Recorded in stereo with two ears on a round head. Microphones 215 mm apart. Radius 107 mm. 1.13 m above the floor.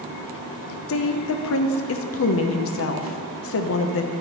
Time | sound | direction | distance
0.9 | a woman speaking | 60° left (ahead or behind) | 0.5 m